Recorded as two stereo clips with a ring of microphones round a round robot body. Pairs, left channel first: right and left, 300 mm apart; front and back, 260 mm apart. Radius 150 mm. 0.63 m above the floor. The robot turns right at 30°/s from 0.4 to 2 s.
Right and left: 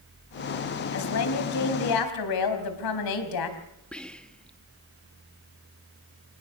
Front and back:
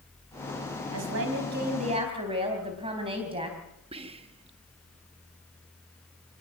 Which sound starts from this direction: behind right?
A woman speaking, at 0.9 s.